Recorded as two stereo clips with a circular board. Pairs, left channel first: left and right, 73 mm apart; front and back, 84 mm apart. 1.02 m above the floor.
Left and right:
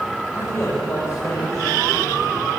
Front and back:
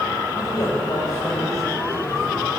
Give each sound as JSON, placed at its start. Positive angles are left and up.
{"t": 0.3, "sound": "a man speaking", "azimuth_deg": 30, "distance_m": 5.0}